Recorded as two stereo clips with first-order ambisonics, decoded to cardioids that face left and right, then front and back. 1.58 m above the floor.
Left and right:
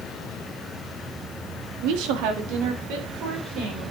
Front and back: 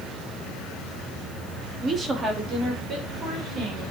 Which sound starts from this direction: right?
A woman speaking, at 1.8 s.